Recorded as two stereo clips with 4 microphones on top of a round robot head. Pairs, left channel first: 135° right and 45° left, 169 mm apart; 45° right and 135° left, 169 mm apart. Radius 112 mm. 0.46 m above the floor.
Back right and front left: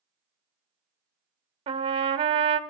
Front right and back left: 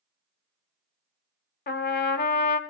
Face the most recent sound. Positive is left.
turn(degrees=-10)